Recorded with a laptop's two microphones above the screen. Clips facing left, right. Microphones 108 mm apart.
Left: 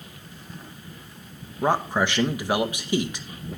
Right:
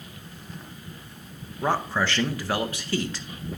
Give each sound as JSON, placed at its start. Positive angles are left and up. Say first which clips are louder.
{"t": 1.6, "sound": "a man speaking", "louder": "left 2 dB", "side_deg": 15, "distance_m": 0.7}